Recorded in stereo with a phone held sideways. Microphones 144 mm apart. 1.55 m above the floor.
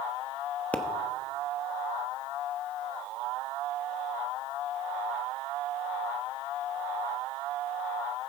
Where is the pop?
10° left (ahead or behind), 0.9 m.